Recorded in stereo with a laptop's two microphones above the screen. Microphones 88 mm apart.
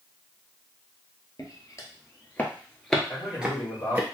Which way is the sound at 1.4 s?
40° left (ahead or behind).